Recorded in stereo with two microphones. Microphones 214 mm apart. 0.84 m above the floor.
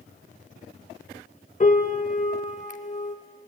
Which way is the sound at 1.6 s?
35° left (ahead or behind).